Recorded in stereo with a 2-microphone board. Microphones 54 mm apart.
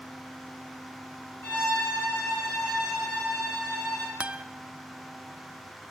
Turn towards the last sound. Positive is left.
turn(degrees=-20)  # may be behind; listen again after turning